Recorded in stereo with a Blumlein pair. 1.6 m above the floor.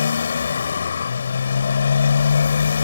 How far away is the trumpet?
No trumpet in this recording.